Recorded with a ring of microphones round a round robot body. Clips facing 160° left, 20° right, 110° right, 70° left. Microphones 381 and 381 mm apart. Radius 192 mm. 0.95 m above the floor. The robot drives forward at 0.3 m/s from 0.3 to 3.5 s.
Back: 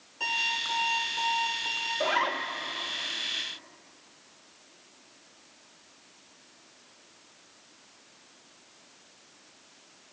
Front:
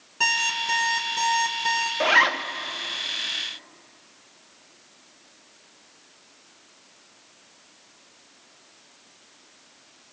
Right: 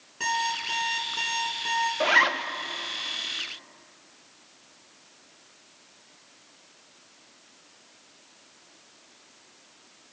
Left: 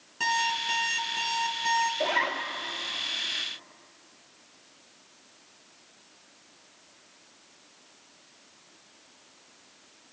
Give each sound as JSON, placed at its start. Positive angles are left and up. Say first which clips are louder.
{"t": 0.2, "sound": "an alarm clock", "louder": "front 6 dB, even", "azimuth_deg": -10, "distance_m": 4.0}
{"t": 2.0, "sound": "a zipper", "louder": "front 4 dB, right 4 dB", "azimuth_deg": -60, "distance_m": 0.9}